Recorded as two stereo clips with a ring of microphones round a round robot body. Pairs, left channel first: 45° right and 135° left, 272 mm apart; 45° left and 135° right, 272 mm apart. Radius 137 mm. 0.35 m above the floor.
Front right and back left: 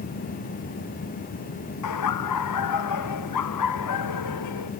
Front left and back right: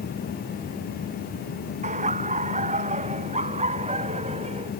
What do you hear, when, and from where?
1.8 s laughter: 70° right; by 4.7 s 65° right